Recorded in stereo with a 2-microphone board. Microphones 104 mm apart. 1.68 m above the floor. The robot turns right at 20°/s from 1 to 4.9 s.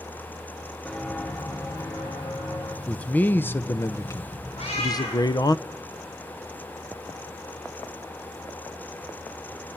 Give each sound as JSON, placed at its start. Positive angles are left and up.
{"t": 0.8, "sound": "footsteps", "side_deg": 10, "distance_m": 2.5}
{"t": 2.9, "sound": "a man speaking", "azimuth_deg": 15, "distance_m": 0.8}
{"t": 4.6, "sound": "a cat meowing", "side_deg": 70, "distance_m": 8.0}